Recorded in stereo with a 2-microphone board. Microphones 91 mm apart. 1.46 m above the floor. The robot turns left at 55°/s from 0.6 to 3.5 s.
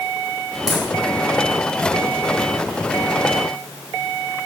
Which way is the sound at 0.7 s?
40° left (ahead or behind).